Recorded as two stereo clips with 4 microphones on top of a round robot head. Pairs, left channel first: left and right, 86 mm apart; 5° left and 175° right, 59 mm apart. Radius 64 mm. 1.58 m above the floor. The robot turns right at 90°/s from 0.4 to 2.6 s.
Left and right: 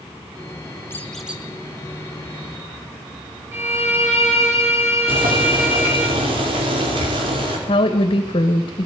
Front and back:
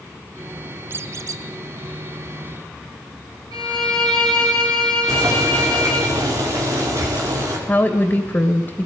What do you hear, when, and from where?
0.9 s a squeak: 155° left, 0.8 m; by 1.4 s 160° right, 0.8 m
3.5 s a violin: 155° right, 7 m
5.1 s boiling: 125° right, 5 m
7.7 s a woman speaking: 65° left, 2 m